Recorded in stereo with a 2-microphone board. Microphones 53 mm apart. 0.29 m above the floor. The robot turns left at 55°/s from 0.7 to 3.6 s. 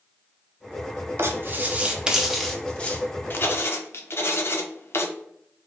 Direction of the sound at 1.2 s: 50° right (ahead or behind).